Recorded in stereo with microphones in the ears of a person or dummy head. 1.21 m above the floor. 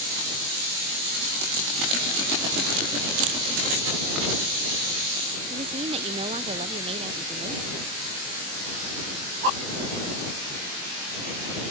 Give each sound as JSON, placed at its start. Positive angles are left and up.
{"t": 3.2, "sound": "a camera shutter", "side_deg": -85}
{"t": 5.5, "sound": "a woman speaking", "side_deg": -25}